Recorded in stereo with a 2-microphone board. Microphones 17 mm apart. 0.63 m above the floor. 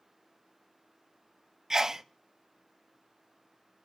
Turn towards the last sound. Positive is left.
turn(degrees=-25)  # may be behind; listen again after turning